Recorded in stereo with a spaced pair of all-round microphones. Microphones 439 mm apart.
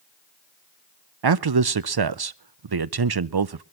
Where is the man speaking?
60° right (ahead or behind), 0.5 m.